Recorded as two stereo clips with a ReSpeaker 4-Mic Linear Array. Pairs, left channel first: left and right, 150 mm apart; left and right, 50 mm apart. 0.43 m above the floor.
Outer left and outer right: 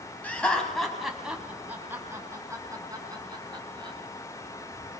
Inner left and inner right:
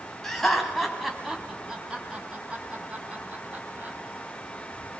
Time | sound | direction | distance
0.2 | laughter | 10° left (ahead or behind) | 3 m